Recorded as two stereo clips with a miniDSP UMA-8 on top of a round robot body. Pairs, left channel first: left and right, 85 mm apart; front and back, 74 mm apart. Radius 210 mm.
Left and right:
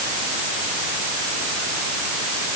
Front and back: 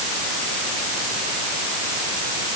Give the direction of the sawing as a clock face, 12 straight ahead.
No sawing in this recording.